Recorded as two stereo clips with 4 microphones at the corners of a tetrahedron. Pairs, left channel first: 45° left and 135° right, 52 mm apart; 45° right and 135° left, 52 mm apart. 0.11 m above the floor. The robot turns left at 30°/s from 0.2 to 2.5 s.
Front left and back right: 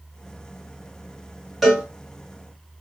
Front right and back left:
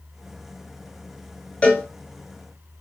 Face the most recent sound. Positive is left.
turn(degrees=-70)